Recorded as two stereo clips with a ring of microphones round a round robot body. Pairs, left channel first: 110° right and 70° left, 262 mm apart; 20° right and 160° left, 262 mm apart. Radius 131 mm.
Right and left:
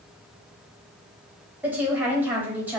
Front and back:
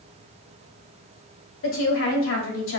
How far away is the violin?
No violin in this recording.